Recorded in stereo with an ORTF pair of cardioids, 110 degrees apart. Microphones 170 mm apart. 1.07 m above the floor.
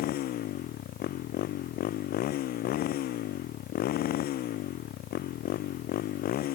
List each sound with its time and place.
0.0 s a motorcycle: 65° left